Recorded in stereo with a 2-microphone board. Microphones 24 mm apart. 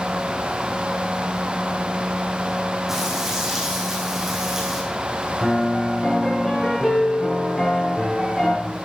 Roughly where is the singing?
I don't hear singing.